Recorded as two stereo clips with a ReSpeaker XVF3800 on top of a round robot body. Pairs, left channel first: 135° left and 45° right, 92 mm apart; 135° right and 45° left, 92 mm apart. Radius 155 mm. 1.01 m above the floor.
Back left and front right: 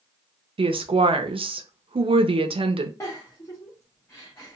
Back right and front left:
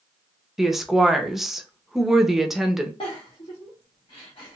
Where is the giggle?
165° right, 0.5 m.